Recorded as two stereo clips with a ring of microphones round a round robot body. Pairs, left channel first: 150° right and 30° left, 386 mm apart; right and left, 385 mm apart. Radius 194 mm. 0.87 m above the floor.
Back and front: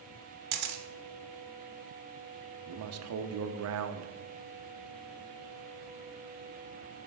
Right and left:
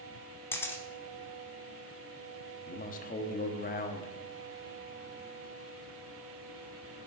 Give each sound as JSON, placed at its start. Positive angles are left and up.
{"t": 0.5, "sound": "a camera shutter", "azimuth_deg": -10, "distance_m": 1.0}
{"t": 2.7, "sound": "a man speaking", "azimuth_deg": -20, "distance_m": 0.7}